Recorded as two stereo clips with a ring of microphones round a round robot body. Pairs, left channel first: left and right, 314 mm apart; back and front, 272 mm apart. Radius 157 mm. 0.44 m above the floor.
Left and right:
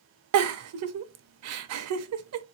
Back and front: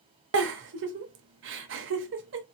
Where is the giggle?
50° right, 0.6 m.